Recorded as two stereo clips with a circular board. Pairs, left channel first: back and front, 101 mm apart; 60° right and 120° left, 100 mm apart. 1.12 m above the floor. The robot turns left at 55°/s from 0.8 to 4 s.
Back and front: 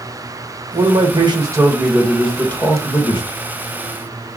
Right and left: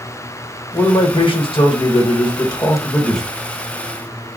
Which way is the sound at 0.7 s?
15° right.